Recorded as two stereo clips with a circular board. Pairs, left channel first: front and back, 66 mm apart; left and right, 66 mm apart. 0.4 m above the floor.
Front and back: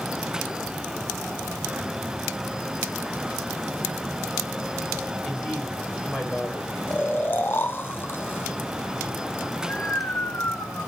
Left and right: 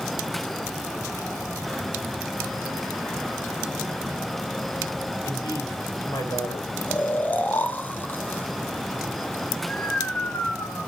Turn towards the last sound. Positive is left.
turn(degrees=40)